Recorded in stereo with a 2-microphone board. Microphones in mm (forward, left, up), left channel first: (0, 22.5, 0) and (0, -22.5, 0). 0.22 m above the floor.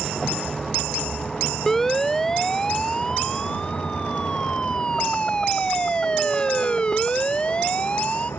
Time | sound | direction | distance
0.0 | a vehicle | centre (ahead or behind) | ?
1.7 | a siren | 10° left (ahead or behind) | ?